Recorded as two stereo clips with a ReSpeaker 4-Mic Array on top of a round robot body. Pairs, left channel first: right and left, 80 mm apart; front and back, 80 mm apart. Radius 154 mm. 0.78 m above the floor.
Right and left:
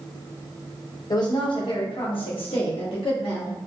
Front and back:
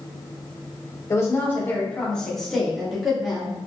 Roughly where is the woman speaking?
Ahead right.